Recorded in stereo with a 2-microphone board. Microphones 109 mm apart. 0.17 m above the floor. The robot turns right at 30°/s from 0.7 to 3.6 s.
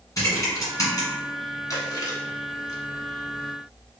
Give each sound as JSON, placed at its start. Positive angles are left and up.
{"t": 0.2, "sound": "typing on a keyboard", "side_deg": 35, "distance_m": 1.8}
{"t": 1.7, "sound": "chewing", "side_deg": 35, "distance_m": 1.0}